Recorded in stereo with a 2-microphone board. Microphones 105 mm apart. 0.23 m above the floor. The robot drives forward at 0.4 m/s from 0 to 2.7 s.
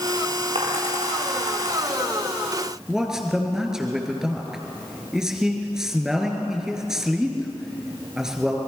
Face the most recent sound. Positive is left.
turn(degrees=-5)  # may be behind; listen again after turning